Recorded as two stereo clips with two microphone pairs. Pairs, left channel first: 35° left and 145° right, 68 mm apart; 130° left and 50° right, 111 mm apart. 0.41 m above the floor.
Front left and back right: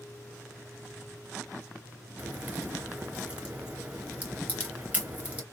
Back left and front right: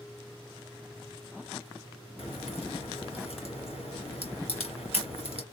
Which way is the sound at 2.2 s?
145° left.